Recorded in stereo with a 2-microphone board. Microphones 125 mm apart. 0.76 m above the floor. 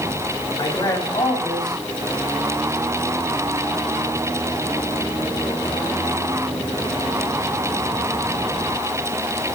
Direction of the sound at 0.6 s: 35° left (ahead or behind).